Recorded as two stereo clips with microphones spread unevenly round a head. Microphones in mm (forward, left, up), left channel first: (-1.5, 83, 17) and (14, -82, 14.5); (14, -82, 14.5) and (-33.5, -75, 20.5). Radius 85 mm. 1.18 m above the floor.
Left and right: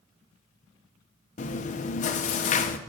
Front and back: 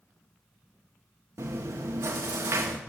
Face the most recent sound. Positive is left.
turn(degrees=135)